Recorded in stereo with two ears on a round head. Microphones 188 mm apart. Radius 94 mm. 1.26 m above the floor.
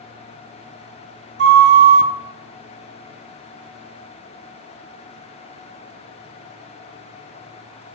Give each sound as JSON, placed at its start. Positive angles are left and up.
{"t": 1.4, "sound": "a flute", "side_deg": -50, "distance_m": 0.6}